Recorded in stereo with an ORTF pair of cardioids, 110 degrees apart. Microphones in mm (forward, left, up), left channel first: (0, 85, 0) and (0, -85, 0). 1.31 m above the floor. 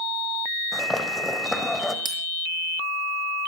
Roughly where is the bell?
Ahead right.